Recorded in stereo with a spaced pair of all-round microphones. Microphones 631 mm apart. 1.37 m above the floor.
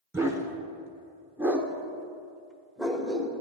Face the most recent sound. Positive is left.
turn(degrees=0)  # may be behind; listen again after turning